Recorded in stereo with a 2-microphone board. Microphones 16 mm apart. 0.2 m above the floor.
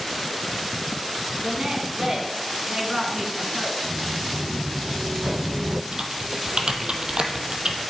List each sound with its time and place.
1.4 s a woman speaking: 50° right (ahead or behind), 2 m; by 3.7 s 15° right (ahead or behind), 2.5 m
3.8 s footsteps: 50° right (ahead or behind), 3 m
5.9 s typing on a keyboard: 60° right (ahead or behind), 1.1 m